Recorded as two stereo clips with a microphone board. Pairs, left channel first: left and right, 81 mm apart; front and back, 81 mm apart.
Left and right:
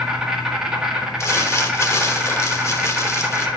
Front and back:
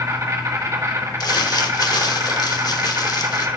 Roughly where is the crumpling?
Ahead left.